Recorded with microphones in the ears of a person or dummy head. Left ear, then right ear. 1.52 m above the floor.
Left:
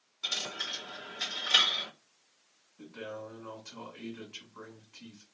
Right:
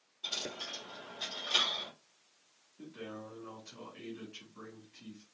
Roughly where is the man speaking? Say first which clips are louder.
Left 4 dB; left.